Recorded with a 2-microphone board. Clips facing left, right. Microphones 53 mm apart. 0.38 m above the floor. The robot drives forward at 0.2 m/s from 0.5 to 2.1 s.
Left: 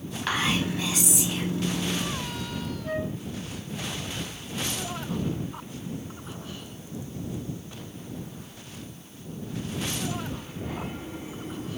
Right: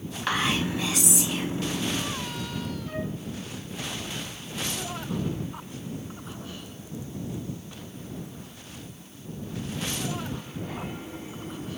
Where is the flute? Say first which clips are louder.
Left 3 dB; 55° left (ahead or behind), 2.5 m.